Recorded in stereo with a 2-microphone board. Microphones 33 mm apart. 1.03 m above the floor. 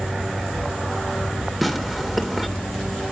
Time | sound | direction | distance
1.6 | tearing paper | 5° right (ahead or behind) | 2 m